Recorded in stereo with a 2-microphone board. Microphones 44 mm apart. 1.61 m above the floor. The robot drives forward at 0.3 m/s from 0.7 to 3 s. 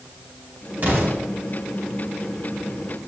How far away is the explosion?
About 5 m.